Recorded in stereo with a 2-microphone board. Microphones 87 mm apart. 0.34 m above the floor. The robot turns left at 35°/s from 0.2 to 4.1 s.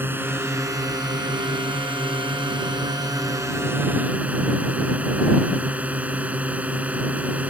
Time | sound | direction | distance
0.0 | a drone | 25° right | ?